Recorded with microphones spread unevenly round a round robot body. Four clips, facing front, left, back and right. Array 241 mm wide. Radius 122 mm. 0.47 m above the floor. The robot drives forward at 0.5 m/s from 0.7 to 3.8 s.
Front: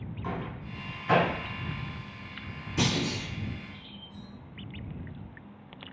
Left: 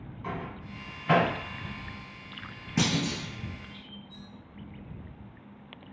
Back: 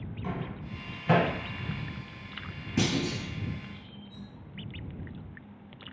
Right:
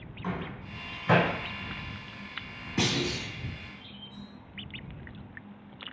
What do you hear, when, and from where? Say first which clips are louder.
0.2 s a microwave: right 1 dB, even; 145° right, 1.1 m; by 1.3 s 150° right, 1.3 m
2.8 s a clunk: left 1 dB, back 1 dB; 135° left, 1.0 m; by 3.3 s 145° left, 1.2 m
4.1 s cutlery clinking: right 2 dB, front 1 dB; 155° left, 1.7 m